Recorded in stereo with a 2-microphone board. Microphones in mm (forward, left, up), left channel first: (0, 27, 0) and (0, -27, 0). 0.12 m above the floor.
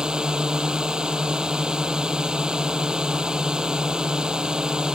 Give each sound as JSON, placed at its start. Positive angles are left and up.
{"t": 0.0, "sound": "a drone", "side_deg": -15}